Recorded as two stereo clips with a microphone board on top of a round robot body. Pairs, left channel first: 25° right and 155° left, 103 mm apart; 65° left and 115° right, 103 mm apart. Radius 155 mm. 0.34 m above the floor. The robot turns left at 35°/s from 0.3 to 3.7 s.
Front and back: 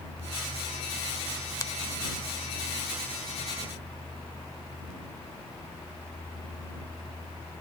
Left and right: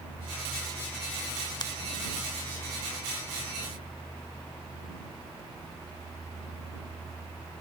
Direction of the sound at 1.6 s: 30° left.